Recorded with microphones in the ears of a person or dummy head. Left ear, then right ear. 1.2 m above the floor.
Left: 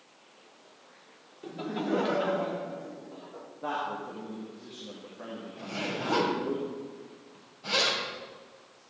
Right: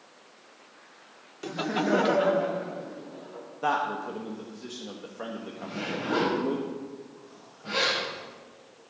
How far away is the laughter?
About 0.7 m.